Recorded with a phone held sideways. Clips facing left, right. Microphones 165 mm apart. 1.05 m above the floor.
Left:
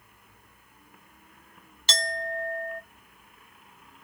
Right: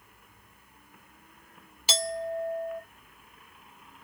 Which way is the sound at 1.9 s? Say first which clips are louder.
Right 2 dB; 5° right (ahead or behind).